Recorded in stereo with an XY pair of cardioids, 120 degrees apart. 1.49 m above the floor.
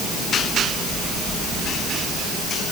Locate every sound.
Only background noise.